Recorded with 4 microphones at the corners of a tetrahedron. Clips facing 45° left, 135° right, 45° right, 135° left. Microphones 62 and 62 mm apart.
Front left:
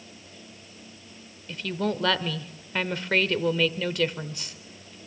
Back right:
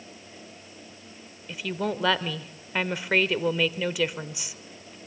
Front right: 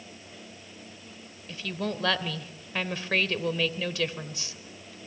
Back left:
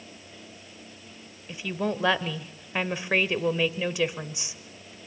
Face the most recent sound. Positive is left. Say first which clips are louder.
# front left 1 dB, back left 3 dB
turn(degrees=160)